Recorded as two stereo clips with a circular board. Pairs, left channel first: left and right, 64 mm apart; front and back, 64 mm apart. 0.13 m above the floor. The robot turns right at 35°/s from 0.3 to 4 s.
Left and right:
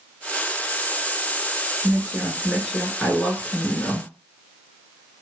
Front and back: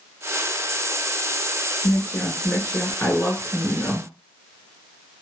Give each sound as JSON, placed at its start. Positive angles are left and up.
{"t": 1.8, "sound": "a woman speaking", "azimuth_deg": -35, "distance_m": 1.6}